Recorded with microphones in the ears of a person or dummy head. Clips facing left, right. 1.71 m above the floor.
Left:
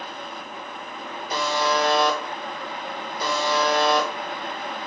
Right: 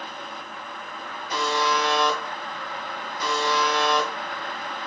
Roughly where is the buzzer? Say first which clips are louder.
Left 1 dB; left.